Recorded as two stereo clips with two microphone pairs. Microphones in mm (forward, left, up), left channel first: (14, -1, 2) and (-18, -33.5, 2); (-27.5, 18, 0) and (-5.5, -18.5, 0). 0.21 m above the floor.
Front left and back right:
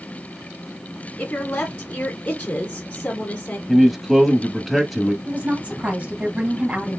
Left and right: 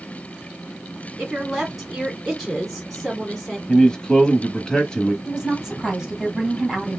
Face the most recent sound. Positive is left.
turn(degrees=-125)